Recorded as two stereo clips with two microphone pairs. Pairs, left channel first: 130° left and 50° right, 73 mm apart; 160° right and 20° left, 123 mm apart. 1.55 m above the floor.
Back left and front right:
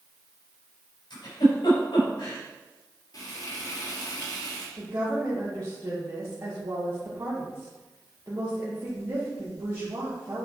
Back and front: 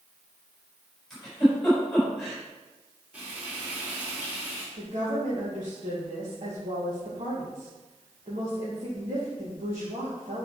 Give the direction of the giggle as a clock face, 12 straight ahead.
8 o'clock.